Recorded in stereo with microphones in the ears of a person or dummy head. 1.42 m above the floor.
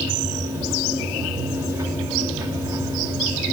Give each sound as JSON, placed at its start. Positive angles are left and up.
{"t": 0.0, "sound": "a machine running", "side_deg": -15, "distance_m": 1.5}